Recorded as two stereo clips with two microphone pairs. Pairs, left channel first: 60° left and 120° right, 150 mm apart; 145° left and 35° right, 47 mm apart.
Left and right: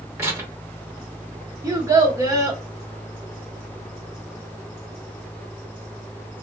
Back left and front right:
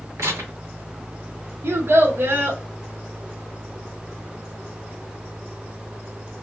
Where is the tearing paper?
50° right, 0.9 m.